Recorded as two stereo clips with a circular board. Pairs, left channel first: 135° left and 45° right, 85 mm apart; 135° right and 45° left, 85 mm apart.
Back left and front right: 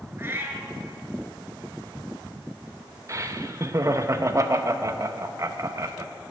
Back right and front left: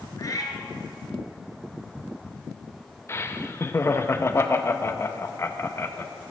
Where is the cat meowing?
100° right, 1.3 m.